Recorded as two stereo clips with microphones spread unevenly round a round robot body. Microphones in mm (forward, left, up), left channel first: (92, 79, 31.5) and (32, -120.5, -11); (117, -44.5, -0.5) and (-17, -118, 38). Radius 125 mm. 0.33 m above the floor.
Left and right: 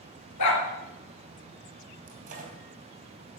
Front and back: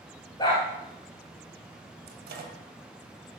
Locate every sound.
0.4 s a dog barking: 105° left, 2.5 m
2.1 s a microwave: 150° right, 2 m